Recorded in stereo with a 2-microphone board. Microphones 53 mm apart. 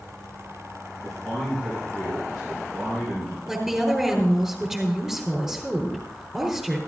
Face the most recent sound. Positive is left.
turn(degrees=-5)  # may be behind; listen again after turning